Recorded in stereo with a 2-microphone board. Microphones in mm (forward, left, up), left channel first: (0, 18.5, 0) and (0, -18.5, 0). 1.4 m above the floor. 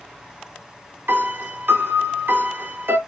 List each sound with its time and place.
1.1 s a piano: 75° right (ahead or behind), 1.2 m